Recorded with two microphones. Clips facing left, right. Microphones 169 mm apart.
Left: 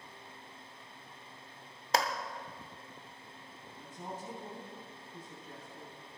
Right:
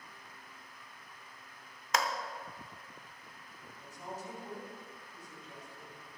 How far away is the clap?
About 0.9 m.